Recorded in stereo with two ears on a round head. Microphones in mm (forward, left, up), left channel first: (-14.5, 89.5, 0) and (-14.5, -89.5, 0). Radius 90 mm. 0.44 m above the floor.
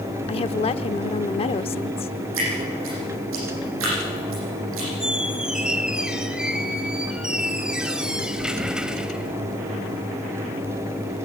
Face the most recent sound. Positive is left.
turn(degrees=-5)  # may be behind; listen again after turning